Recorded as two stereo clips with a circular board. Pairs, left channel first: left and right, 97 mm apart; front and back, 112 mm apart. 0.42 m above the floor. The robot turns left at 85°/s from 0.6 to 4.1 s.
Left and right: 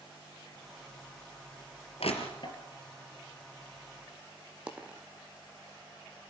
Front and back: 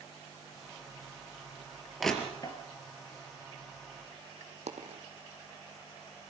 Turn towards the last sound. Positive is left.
turn(degrees=-170)